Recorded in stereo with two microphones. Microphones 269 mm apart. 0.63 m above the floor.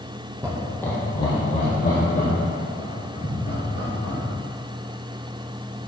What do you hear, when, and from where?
0.4 s laughter: 10° right (ahead or behind), 1.0 m; by 4.2 s 40° left (ahead or behind), 5.5 m